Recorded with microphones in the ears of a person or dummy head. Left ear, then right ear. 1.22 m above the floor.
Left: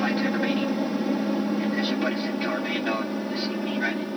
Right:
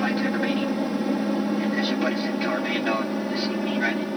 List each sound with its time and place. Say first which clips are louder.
0.0 s an aircraft: even; centre (ahead or behind); by 4.2 s 20° right (ahead or behind)